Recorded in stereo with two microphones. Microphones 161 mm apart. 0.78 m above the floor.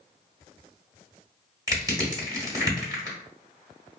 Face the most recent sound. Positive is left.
turn(degrees=-25)  # may be behind; listen again after turning